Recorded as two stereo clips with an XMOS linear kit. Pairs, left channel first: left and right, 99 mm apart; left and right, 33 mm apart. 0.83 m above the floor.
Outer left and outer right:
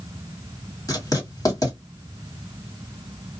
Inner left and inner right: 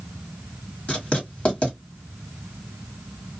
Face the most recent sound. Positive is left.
turn(degrees=40)  # may be behind; listen again after turning